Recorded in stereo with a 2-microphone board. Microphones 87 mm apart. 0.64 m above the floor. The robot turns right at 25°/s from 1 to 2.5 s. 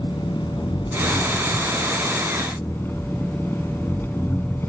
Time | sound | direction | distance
0.0 | an engine running | 115° left | ?